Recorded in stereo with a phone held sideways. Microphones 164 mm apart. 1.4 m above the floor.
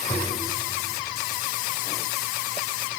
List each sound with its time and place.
0.1 s tapping: 50° left (ahead or behind), 4.5 m